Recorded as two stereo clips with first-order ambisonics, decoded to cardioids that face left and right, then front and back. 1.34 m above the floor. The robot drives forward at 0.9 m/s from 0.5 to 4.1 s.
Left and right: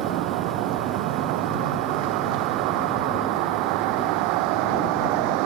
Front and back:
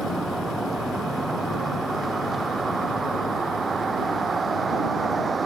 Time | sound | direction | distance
0.0 | a vehicle | 100° right | ?